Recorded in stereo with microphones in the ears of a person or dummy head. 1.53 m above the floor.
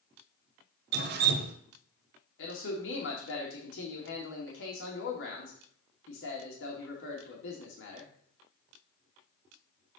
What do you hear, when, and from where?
0.9 s dripping: 60° right (ahead or behind), 1.1 m
2.4 s a man speaking: 80° left, 2.5 m